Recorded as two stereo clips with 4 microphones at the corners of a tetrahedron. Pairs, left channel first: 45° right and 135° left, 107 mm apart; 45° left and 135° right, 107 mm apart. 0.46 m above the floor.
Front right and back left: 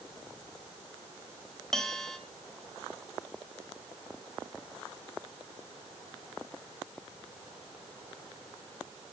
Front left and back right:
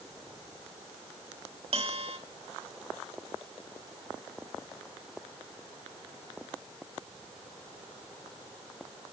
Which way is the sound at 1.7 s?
130° right.